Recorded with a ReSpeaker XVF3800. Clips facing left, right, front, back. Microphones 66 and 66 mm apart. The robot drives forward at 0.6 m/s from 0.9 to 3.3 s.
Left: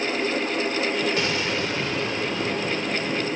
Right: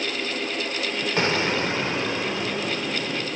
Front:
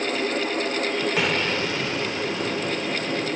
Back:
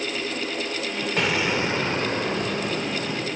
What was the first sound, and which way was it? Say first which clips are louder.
An explosion: right 2 dB, even; 85° right.